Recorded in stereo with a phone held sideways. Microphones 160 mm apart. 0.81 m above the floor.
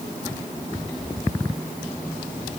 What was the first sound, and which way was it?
Only background noise.